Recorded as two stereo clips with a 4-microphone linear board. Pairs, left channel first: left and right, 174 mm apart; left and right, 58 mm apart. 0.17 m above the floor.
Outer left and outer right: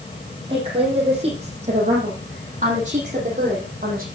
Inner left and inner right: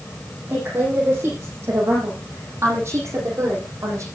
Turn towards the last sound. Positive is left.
turn(degrees=-50)  # may be behind; listen again after turning